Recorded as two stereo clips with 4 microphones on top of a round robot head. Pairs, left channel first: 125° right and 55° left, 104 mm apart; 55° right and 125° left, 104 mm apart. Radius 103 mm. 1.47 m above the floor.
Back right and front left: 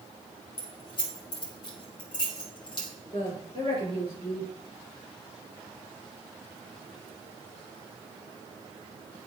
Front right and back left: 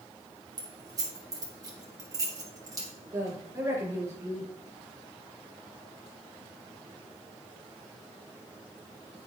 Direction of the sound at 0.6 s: 175° right.